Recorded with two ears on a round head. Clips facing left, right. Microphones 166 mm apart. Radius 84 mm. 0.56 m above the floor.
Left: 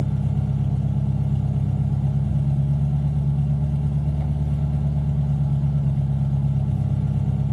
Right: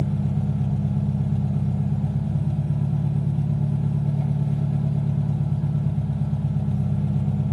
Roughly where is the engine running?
Centre.